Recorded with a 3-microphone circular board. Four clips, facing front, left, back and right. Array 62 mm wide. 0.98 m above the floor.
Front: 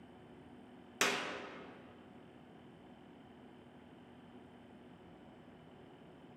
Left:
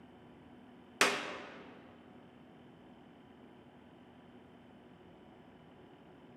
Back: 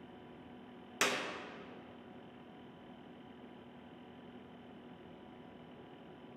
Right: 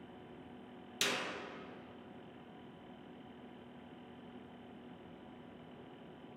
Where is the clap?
90° left, 1.1 m.